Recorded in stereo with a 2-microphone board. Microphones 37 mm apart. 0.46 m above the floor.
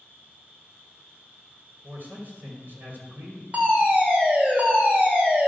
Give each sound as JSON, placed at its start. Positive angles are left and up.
{"t": 0.0, "sound": "an insect", "side_deg": -65, "distance_m": 3.0}
{"t": 1.8, "sound": "a man speaking", "side_deg": -55, "distance_m": 2.5}
{"t": 3.5, "sound": "a fire alarm", "side_deg": -45, "distance_m": 2.5}